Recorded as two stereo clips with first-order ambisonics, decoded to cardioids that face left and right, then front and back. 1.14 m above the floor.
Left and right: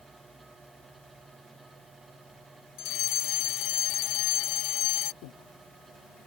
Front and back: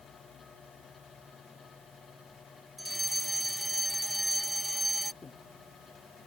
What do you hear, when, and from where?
2.8 s a fire alarm: 90° left
5.2 s breathing: 75° left